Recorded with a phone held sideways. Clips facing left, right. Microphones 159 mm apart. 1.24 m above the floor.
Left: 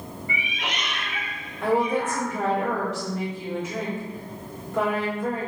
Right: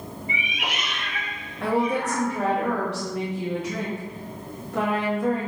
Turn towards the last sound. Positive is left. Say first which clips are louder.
# left 1 dB
turn(degrees=-75)  # may be behind; listen again after turning